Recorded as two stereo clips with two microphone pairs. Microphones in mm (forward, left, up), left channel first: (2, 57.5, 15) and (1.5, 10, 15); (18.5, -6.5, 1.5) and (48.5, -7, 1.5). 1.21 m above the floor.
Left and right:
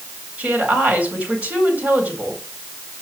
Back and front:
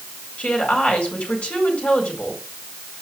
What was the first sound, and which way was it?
A woman speaking, 140° right.